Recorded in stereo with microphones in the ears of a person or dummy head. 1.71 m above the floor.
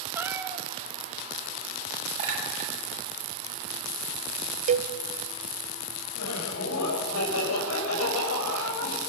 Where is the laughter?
85° left, 7.5 m.